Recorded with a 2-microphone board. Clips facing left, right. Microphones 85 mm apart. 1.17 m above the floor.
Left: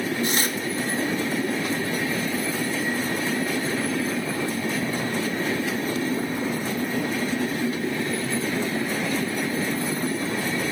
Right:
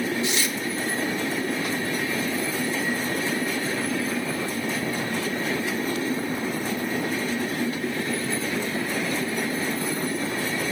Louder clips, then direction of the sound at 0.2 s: Left 1 dB; 45° left (ahead or behind).